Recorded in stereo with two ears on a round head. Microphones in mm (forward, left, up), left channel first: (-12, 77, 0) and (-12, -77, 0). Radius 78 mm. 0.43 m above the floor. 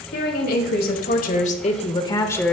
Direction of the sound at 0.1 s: 65° left (ahead or behind).